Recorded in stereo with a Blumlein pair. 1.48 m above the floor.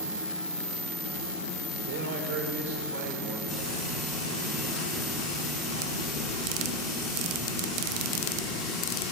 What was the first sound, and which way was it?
A man speaking, 50° right.